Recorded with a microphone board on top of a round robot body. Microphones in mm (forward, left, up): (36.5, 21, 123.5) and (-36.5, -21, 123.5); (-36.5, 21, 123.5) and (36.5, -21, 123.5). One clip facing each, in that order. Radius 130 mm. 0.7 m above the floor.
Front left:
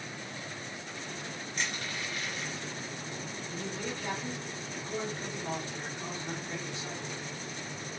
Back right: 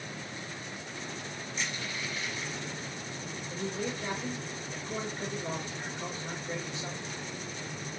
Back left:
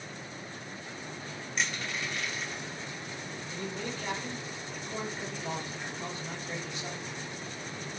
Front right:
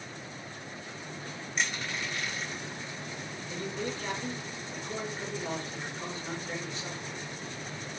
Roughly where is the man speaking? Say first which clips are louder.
Back right 4 dB, front right 3 dB; right.